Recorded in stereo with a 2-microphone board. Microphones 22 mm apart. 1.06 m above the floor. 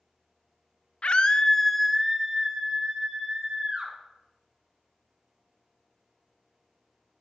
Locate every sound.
1.0 s a scream: 55° left (ahead or behind), 0.9 m; by 3.9 s 35° right (ahead or behind), 3 m